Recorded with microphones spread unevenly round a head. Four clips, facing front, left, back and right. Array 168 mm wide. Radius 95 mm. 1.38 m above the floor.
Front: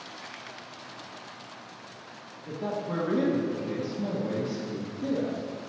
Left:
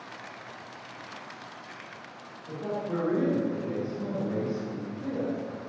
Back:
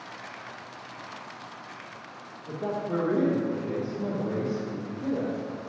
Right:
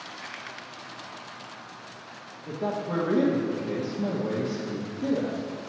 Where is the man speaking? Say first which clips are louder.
Right 2 dB, back 2 dB; 65° right, 1.2 m.